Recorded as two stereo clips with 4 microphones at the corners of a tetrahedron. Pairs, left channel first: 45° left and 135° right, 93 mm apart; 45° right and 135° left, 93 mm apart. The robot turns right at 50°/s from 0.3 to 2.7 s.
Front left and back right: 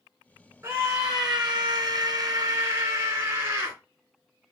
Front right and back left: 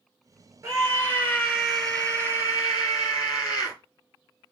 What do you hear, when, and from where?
0.6 s a scream: 175° left, 2.5 m; by 3.8 s 80° right, 2.5 m